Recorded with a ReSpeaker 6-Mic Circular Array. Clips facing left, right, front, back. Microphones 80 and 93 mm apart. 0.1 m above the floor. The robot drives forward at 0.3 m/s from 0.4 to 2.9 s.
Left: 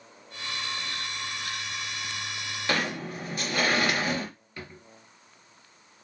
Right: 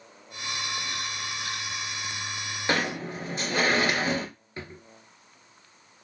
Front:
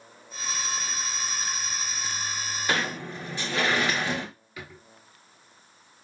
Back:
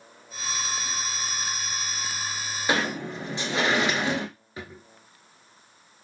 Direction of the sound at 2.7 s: 130° right.